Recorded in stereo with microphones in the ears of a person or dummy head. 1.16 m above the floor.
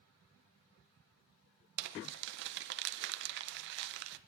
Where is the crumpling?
55° right (ahead or behind), 0.7 m.